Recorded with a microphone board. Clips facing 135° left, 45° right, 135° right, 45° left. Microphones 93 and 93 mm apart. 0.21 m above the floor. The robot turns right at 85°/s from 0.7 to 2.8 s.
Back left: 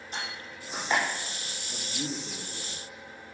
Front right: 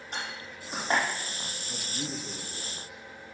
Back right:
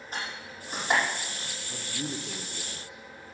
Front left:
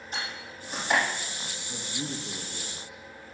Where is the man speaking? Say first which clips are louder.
Back left 2 dB, even; 5° right, 2 m; by 3.0 s 90° left, 2 m.